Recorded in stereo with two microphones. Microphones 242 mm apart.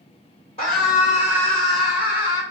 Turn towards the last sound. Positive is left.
turn(degrees=-15)  # may be behind; listen again after turning